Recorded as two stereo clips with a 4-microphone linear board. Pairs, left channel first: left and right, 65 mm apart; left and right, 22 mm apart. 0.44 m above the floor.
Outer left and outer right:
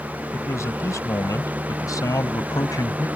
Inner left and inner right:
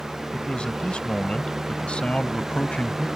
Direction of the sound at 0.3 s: 50° left (ahead or behind).